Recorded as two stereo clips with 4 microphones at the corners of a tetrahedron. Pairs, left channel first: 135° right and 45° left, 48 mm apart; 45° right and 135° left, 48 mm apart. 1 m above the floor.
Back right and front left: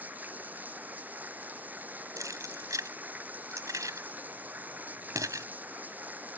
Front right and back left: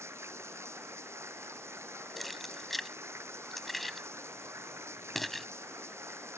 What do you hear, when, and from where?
0.0 s running water: 105° left
2.2 s keys jangling: 45° left